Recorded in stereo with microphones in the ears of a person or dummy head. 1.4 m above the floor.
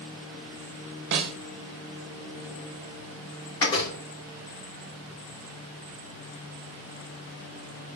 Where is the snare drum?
60° right (ahead or behind), 1.8 m.